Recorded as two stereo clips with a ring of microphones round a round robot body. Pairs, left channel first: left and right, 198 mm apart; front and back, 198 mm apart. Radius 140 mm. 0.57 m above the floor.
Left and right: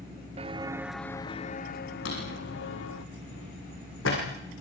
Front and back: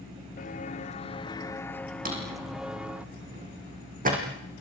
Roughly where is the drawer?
Behind left.